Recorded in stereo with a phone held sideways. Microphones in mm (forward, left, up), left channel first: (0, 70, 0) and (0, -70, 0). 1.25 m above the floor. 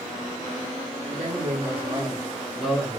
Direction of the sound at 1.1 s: 60° right (ahead or behind).